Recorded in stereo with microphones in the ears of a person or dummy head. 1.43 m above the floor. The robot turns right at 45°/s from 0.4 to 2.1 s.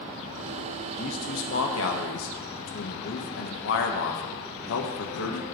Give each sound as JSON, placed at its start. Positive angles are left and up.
{"t": 1.0, "sound": "a man speaking", "azimuth_deg": 45, "distance_m": 1.3}